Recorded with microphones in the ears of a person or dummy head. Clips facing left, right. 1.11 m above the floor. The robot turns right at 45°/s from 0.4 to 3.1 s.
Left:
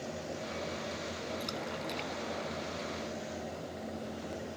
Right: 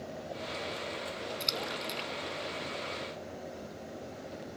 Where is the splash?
30° right (ahead or behind); by 3.2 s 45° left (ahead or behind).